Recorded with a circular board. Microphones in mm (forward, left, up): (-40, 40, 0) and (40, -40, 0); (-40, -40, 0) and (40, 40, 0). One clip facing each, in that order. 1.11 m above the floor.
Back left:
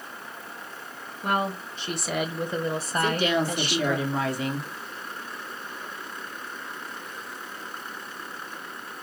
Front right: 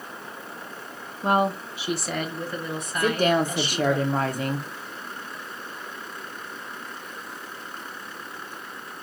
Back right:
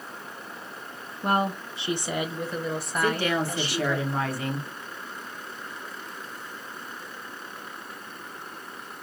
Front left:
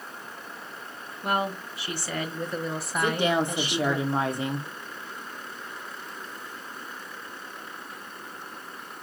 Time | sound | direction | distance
1.2 | a woman speaking | 95° right | 0.8 m
3.0 | a woman speaking | 20° right | 0.8 m